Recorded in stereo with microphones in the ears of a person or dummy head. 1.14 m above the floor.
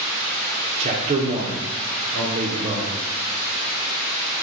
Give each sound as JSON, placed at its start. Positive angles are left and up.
{"t": 0.8, "sound": "a man speaking", "side_deg": -40, "distance_m": 0.5}